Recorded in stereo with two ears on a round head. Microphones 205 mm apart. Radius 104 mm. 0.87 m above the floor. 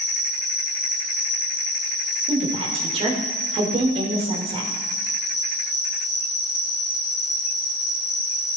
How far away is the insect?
About 1.5 m.